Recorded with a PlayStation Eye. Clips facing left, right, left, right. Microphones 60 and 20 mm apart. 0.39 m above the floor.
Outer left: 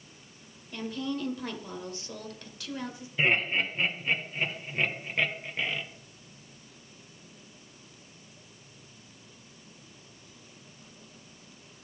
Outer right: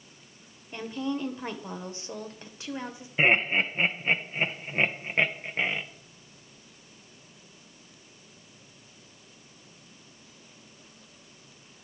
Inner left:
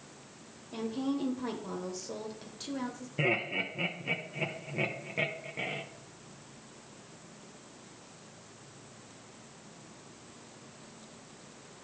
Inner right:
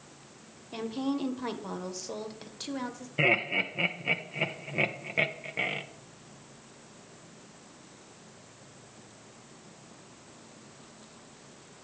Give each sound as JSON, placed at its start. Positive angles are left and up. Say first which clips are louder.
{"t": 0.7, "sound": "a woman speaking", "louder": "outer right 2 dB, inner right 2 dB", "side_deg": -25, "distance_m": 1.1}
{"t": 3.2, "sound": "laughter", "louder": "outer right 3 dB, inner right 5 dB", "side_deg": -30, "distance_m": 0.9}